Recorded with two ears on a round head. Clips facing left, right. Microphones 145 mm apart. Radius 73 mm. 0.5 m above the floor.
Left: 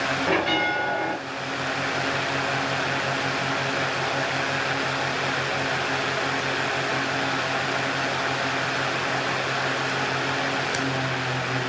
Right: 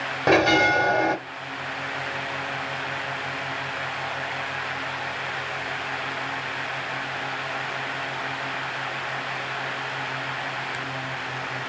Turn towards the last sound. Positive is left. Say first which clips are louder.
# right 7 dB
turn(degrees=-55)  # may be behind; listen again after turning